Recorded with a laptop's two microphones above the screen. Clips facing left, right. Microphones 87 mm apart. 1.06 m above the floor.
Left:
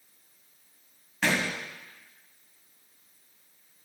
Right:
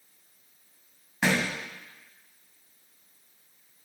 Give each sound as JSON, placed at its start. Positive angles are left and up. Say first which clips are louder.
{"t": 1.2, "sound": "a thud", "louder": "right 1 dB", "side_deg": -15, "distance_m": 1.4}